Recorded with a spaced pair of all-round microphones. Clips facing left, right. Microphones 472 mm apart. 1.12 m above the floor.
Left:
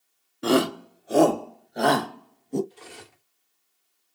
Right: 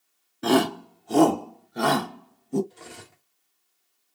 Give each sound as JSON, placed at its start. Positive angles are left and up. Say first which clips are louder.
{"t": 0.4, "sound": "a shout", "louder": "even", "side_deg": -5, "distance_m": 0.6}
{"t": 2.7, "sound": "cutlery clinking", "louder": "right 1 dB", "side_deg": -65, "distance_m": 1.9}